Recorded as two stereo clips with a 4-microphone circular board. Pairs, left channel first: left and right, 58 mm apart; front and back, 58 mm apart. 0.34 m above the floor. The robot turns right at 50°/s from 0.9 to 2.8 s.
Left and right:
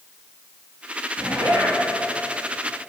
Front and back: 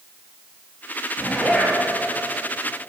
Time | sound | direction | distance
1.2 | a zipper | 95° right | 5 m